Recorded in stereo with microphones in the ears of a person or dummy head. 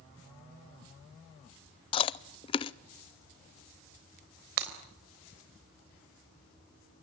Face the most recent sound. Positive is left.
turn(degrees=-60)  # may be behind; listen again after turning